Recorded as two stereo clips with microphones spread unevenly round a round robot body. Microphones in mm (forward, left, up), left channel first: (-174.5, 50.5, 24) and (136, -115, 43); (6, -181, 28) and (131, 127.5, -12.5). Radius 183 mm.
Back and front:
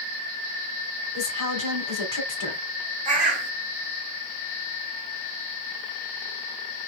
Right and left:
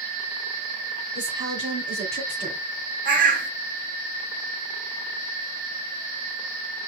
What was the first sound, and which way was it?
A woman speaking, 140° left.